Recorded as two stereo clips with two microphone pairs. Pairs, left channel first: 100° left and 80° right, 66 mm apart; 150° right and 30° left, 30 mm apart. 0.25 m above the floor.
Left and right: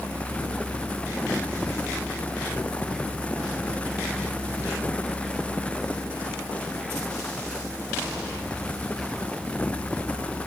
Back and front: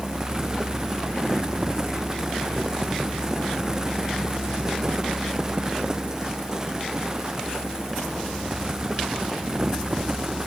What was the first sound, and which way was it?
Only background noise.